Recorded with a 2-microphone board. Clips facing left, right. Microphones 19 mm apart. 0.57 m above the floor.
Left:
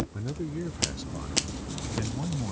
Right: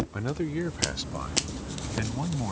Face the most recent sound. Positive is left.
turn(degrees=-30)  # may be behind; listen again after turning